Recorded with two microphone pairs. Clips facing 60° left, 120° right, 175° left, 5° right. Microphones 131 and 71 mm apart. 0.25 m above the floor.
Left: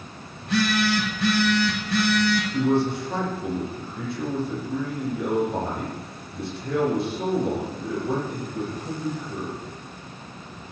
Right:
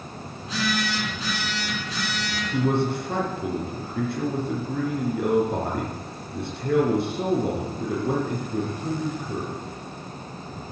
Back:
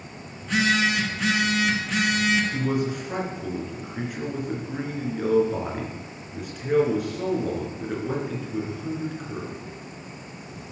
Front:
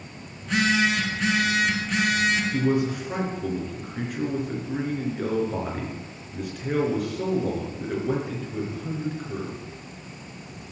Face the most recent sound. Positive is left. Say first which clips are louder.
# right 2 dB, front 2 dB
turn(degrees=-95)